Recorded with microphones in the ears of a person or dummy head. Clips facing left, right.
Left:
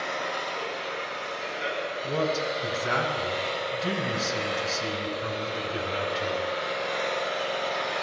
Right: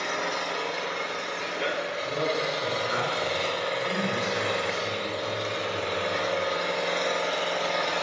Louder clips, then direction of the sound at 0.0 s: Right 1 dB; 65° right (ahead or behind).